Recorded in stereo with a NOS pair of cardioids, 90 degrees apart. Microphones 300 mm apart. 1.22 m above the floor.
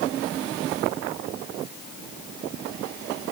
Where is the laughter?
No laughter in this recording.